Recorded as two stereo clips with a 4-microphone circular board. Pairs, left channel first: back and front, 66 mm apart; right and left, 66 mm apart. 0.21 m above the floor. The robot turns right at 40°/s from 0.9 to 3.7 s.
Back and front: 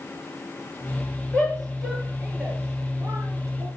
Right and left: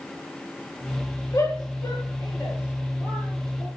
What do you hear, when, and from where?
1.3 s a shout: 110° right, 5.5 m; by 3.7 s 15° right, 5.5 m